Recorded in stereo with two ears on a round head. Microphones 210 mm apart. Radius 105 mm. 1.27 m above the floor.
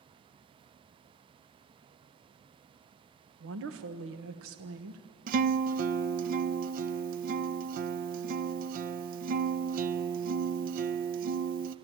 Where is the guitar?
40° right (ahead or behind), 0.5 m.